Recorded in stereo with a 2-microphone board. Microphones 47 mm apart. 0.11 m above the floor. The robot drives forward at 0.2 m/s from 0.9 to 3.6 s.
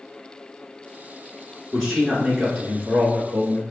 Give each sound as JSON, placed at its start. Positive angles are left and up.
{"t": 1.7, "sound": "a man speaking", "side_deg": 0, "distance_m": 1.1}